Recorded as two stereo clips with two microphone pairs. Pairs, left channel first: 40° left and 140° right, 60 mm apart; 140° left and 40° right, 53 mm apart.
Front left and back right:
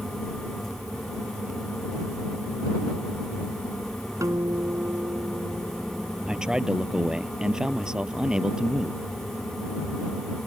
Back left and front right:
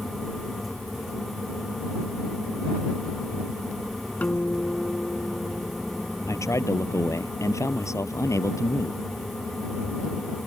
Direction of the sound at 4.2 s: 165° right.